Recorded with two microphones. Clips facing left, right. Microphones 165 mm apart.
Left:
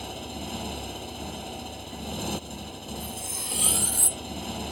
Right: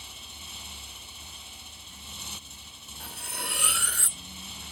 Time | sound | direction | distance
0.0 | a motorcycle | 65° left (ahead or behind) | ?
3.0 | cutlery clinking | 75° right (ahead or behind) | ?